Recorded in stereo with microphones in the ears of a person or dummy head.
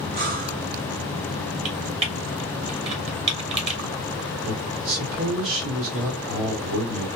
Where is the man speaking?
65° right (ahead or behind), 1.8 m.